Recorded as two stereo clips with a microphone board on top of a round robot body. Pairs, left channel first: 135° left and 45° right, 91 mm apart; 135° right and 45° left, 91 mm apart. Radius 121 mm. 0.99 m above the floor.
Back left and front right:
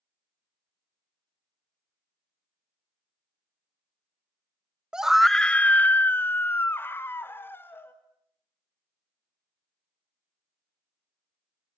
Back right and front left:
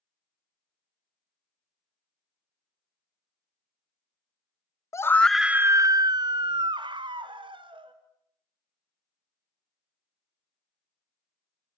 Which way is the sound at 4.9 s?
120° right.